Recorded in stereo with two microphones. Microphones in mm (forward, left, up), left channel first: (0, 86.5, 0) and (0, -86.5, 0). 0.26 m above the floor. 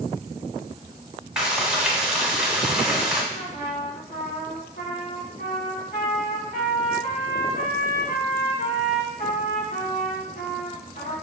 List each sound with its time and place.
1.4 s frying: 5° right (ahead or behind), 1.0 m
3.3 s a trumpet: 55° left (ahead or behind), 1.9 m